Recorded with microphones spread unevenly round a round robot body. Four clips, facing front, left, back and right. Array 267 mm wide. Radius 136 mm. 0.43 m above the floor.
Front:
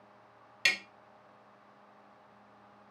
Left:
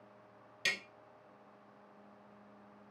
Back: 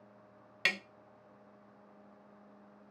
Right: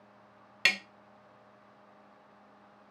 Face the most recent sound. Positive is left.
turn(degrees=-100)